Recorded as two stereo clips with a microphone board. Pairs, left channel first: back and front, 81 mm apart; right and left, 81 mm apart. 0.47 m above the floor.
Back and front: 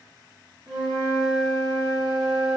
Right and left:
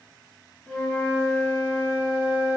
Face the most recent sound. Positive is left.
turn(degrees=-15)